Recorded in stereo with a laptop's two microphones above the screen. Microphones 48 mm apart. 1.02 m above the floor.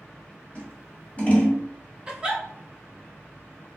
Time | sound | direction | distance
0.6 | scissors | 35° left (ahead or behind) | 1.9 m
2.1 | a giggle | 20° right (ahead or behind) | 1.0 m